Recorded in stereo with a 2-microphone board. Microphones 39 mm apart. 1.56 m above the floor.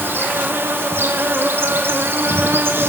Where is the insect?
75° right (ahead or behind), 3 m.